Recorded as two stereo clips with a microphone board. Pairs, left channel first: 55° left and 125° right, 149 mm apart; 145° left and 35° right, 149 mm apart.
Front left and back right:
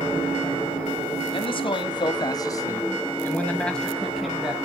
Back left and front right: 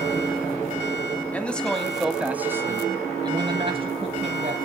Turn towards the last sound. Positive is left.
turn(degrees=-40)